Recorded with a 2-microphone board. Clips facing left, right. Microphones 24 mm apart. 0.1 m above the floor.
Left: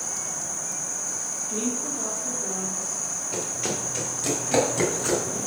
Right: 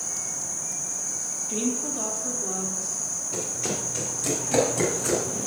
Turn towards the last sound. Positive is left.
turn(degrees=15)  # may be behind; listen again after turning